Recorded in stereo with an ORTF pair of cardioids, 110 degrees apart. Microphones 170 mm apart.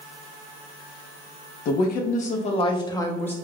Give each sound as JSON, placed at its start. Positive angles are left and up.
{"t": 1.6, "sound": "a woman speaking", "azimuth_deg": 65, "distance_m": 1.0}